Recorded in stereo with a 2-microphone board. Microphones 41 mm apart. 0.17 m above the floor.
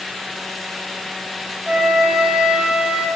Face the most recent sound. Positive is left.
turn(degrees=-30)  # may be behind; listen again after turning